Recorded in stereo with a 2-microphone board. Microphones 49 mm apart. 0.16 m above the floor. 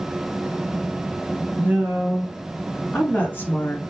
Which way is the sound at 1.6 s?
35° right (ahead or behind).